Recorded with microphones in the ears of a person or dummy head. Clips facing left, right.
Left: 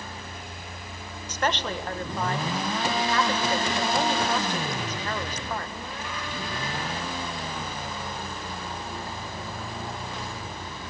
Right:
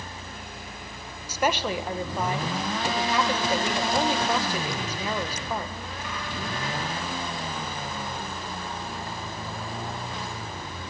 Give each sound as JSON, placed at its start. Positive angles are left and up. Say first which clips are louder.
{"t": 1.3, "sound": "a woman speaking", "louder": "right 2 dB", "side_deg": -15, "distance_m": 1.7}